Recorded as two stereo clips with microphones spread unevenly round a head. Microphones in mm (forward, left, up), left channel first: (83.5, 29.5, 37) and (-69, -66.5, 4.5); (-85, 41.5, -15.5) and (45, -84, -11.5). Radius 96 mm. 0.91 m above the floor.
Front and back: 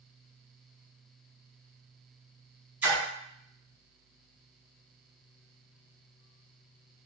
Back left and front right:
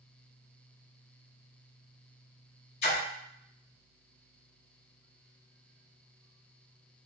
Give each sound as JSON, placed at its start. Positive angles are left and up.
{"t": 2.8, "sound": "a splash", "azimuth_deg": 125, "distance_m": 1.1}